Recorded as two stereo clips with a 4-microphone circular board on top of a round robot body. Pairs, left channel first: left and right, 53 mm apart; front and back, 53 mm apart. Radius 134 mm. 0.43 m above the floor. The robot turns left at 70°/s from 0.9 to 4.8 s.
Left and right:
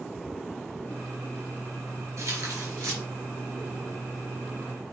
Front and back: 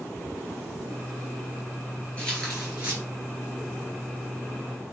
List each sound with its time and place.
2.2 s tearing paper: 70° right, 4.5 m; by 3.0 s 125° right, 4.5 m